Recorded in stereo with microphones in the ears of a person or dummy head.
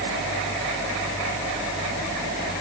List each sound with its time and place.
Only background noise.